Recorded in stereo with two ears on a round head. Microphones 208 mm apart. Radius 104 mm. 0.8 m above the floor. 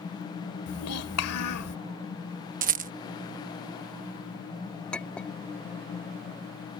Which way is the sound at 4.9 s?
5° left (ahead or behind).